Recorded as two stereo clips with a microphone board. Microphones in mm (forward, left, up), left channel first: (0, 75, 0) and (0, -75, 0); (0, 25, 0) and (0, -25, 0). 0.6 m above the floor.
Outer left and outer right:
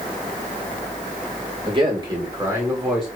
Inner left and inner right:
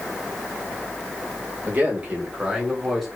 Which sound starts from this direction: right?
A man speaking, at 1.6 s.